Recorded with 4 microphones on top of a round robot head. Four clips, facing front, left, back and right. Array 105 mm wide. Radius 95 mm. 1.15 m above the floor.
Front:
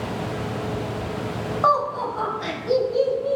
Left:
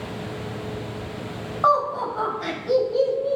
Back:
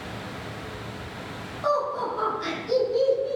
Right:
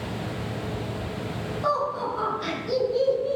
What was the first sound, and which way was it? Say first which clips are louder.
Laughter: left 6 dB, front 4 dB; 40° left.